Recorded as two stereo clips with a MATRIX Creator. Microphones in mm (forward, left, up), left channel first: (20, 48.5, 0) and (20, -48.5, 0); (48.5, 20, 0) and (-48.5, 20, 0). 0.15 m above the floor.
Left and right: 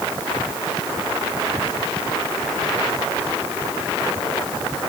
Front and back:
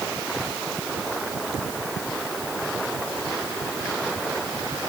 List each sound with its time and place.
Only background noise.